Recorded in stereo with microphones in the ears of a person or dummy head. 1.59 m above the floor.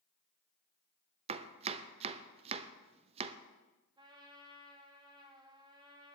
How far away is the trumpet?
About 2 m.